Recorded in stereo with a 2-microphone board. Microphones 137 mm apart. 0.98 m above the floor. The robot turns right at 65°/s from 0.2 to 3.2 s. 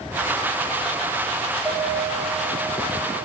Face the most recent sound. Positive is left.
turn(degrees=100)